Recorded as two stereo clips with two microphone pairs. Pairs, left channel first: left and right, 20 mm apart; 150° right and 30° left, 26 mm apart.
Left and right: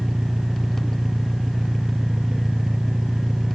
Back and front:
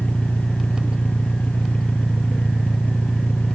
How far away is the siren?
No siren in this recording.